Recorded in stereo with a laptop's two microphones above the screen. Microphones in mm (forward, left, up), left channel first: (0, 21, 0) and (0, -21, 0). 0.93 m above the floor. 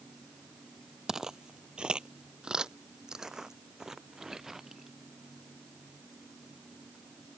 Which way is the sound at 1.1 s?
10° right (ahead or behind).